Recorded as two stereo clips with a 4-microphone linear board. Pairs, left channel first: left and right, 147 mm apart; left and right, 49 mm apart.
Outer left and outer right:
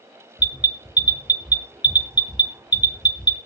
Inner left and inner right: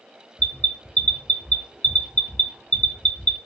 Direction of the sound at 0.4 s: 30° left (ahead or behind).